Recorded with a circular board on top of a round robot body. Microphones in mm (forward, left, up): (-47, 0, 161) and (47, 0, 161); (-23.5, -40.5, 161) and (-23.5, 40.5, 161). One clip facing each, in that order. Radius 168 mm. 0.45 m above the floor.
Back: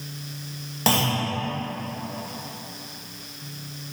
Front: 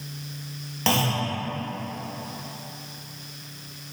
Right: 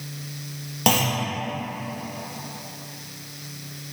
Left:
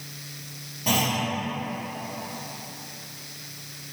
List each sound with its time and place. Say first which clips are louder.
0.9 s a clunk: back 1 dB, right 3 dB; 100° right, 0.8 m